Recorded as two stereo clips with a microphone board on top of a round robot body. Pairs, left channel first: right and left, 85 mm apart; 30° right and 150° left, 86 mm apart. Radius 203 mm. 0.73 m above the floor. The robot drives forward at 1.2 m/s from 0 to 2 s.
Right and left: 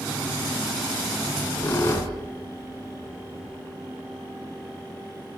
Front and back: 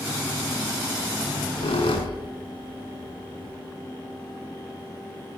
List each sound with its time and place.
1.3 s a squeak: 25° right, 4.5 m; by 3.6 s 30° right, 4 m